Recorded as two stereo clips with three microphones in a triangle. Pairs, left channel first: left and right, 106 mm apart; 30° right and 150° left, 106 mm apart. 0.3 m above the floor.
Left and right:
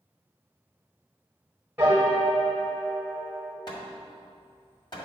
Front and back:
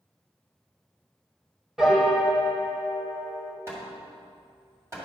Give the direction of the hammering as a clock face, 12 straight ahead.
9 o'clock.